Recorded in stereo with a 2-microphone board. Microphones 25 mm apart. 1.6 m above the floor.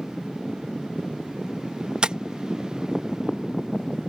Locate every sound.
2.0 s tapping: 35° right (ahead or behind)